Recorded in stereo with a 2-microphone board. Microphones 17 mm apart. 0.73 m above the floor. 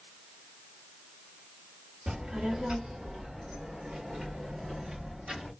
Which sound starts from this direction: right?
A child speaking, at 2.1 s.